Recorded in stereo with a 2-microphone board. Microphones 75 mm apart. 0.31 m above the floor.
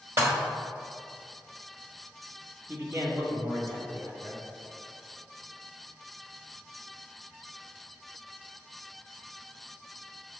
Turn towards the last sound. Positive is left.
turn(degrees=-40)  # may be behind; listen again after turning